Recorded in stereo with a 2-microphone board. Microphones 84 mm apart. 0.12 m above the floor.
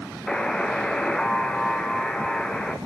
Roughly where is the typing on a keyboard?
I don't hear typing on a keyboard.